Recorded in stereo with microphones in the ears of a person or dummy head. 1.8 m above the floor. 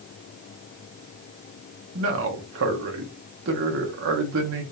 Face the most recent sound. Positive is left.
turn(degrees=-70)  # may be behind; listen again after turning